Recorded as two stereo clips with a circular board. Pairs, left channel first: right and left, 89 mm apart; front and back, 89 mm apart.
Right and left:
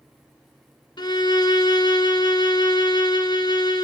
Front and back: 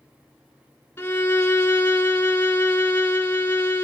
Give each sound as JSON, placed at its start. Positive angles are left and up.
{"t": 1.0, "sound": "a violin", "azimuth_deg": -65, "distance_m": 0.7}